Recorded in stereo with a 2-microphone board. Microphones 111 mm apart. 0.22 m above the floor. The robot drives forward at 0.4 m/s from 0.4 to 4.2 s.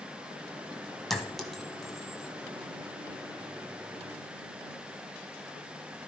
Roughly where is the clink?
Centre.